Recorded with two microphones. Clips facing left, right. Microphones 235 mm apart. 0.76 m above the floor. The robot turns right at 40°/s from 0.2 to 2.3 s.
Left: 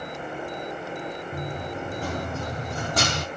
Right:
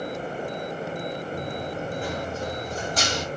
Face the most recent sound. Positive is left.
turn(degrees=55)  # may be behind; listen again after turning